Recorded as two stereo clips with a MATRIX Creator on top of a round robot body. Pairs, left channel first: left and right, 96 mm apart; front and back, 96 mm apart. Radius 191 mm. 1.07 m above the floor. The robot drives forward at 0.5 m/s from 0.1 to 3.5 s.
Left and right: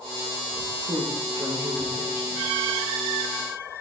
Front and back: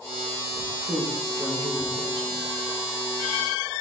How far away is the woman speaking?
About 2.0 m.